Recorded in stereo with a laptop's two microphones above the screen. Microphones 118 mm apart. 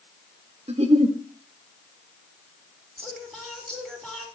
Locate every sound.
0.7 s a giggle: 65° right (ahead or behind), 1.3 m
3.0 s singing: 10° left (ahead or behind), 4 m